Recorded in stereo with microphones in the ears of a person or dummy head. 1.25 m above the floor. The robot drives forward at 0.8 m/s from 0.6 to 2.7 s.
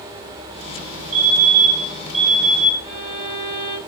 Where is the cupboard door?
No cupboard door in this recording.